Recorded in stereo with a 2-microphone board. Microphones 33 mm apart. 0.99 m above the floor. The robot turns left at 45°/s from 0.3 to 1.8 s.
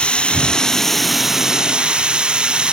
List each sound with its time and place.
0.0 s running water: 35° left; by 2.7 s 30° right